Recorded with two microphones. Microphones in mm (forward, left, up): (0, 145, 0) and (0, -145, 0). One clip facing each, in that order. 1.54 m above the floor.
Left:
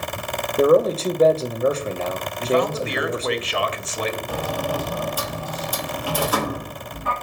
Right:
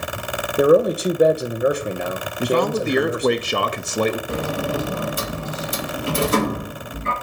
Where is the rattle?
I don't hear a rattle.